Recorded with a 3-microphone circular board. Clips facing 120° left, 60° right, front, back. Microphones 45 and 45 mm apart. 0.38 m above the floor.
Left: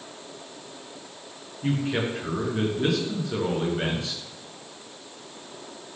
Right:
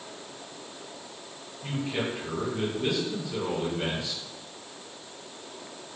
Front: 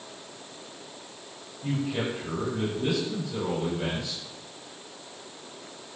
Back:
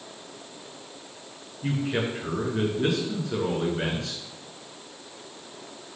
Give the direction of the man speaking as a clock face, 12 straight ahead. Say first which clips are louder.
Left 5 dB, back 2 dB; 7 o'clock.